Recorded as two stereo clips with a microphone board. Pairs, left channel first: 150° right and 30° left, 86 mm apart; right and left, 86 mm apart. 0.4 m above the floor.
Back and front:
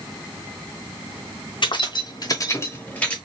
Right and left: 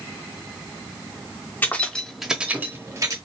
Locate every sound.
1.6 s keys jangling: 155° right, 1.0 m; by 3.2 s 135° left, 1.0 m